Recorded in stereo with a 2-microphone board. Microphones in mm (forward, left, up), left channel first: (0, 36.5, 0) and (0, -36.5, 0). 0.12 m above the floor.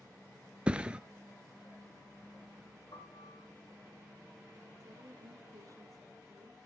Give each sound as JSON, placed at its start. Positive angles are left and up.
{"t": 0.7, "sound": "a thud", "side_deg": -15, "distance_m": 0.5}
{"t": 2.9, "sound": "a piano", "side_deg": 75, "distance_m": 5.5}
{"t": 4.8, "sound": "a woman speaking", "side_deg": -45, "distance_m": 3.5}